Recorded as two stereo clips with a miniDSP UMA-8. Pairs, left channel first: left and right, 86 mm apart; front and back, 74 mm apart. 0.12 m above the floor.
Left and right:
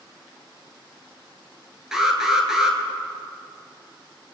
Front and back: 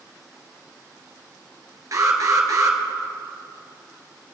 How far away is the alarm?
About 1.6 m.